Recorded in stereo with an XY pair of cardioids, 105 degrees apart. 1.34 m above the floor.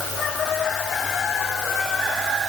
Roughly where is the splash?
No splash in this recording.